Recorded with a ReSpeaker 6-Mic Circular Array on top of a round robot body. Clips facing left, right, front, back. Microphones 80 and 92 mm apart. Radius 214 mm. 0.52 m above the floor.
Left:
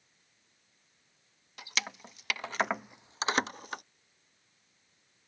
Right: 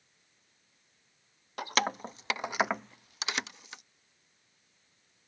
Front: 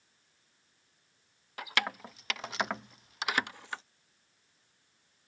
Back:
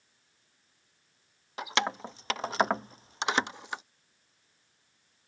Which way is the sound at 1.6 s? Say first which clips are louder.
Right 8 dB, back 4 dB; 115° right.